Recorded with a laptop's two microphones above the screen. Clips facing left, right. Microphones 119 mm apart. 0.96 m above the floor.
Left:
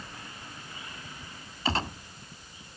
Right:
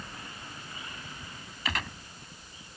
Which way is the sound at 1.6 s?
30° left (ahead or behind).